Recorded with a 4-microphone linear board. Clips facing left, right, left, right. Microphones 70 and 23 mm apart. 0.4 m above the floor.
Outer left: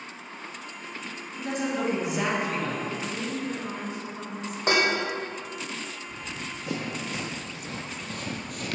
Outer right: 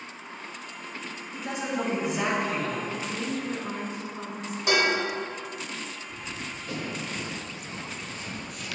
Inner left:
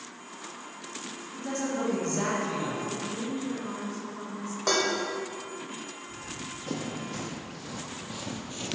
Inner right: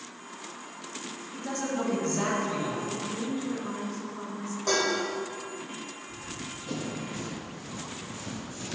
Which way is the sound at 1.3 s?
10° right (ahead or behind).